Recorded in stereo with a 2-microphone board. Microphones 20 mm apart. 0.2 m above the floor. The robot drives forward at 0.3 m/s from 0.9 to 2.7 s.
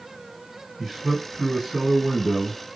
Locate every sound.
0.8 s a man speaking: 10° right (ahead or behind), 2 m; by 2.6 s 5° right (ahead or behind), 2.5 m